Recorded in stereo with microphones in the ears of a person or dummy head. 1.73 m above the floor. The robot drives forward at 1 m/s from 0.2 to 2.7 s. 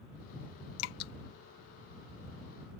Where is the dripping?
75° left (ahead or behind); by 1.1 s 65° left (ahead or behind).